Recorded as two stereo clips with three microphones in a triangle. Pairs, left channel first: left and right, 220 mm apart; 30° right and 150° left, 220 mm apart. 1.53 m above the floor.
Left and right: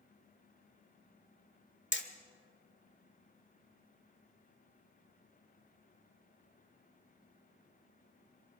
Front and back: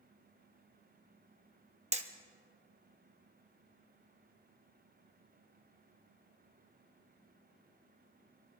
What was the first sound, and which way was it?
Hammering, 95° left.